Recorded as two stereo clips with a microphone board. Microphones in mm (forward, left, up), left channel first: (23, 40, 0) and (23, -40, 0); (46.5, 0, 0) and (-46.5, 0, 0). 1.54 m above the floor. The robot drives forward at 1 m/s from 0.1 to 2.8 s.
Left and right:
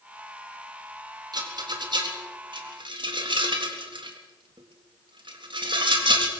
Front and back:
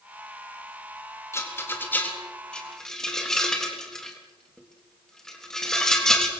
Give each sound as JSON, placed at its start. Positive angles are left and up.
{"t": 1.3, "sound": "a rattle", "azimuth_deg": -60, "distance_m": 3.5}